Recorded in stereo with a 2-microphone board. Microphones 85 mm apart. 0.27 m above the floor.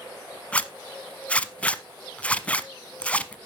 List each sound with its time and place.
0.5 s a zipper: 15° left (ahead or behind), 0.7 m